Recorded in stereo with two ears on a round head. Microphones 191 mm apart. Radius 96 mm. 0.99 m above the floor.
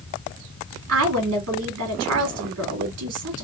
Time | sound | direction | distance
0.9 | a woman speaking | 85° right | 2 m